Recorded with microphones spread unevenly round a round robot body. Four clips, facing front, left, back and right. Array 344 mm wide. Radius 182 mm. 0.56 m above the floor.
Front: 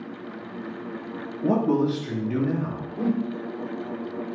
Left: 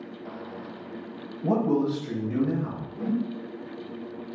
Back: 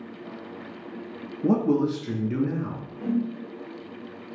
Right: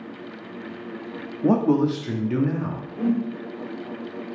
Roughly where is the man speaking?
Right.